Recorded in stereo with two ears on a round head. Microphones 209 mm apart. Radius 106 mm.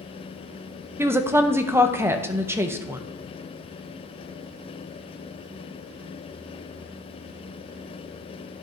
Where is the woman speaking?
10° right (ahead or behind), 0.5 m.